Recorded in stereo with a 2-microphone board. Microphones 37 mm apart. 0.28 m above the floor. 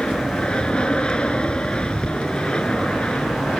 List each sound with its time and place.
0.0 s an aircraft: 30° left (ahead or behind)